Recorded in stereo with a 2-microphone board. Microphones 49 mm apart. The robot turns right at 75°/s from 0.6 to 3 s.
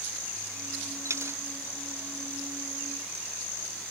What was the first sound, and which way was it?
A dropped coin, 70° right (ahead or behind).